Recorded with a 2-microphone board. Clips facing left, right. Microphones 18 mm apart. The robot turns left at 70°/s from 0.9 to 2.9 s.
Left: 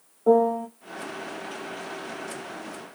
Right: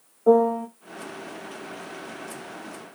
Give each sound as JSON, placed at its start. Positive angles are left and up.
{"t": 0.3, "sound": "a piano", "side_deg": 0, "distance_m": 0.7}